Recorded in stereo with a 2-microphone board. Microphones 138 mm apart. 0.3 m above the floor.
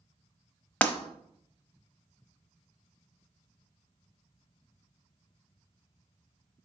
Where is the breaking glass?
10° left (ahead or behind), 0.9 m.